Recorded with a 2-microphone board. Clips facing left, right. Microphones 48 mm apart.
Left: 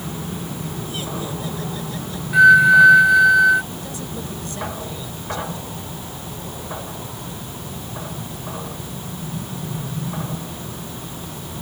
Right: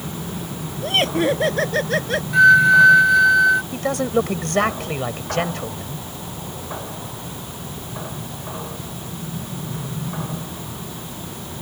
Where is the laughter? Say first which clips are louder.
Right 14 dB; 65° right (ahead or behind); by 2.2 s 70° right (ahead or behind).